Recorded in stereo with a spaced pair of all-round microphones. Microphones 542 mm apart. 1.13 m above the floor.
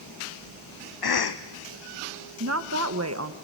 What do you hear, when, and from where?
1.0 s a cough: 45° left (ahead or behind), 0.5 m
2.4 s a woman speaking: 30° right (ahead or behind), 1.1 m